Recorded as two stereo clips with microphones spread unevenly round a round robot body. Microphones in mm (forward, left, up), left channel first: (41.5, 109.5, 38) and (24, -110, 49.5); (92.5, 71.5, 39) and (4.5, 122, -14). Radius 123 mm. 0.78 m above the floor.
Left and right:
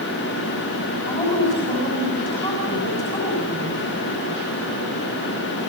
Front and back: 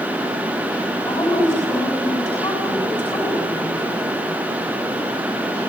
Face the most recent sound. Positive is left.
turn(degrees=15)